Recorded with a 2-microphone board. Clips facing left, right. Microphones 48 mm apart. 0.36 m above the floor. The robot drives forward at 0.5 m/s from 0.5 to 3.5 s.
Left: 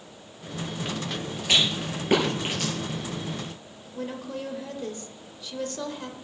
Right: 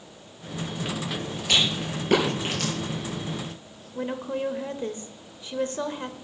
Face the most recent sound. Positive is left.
turn(degrees=-30)  # may be behind; listen again after turning